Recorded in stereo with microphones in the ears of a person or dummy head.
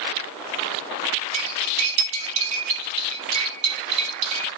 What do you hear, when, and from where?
1.3 s cutlery clinking: 35° right (ahead or behind), 5.5 m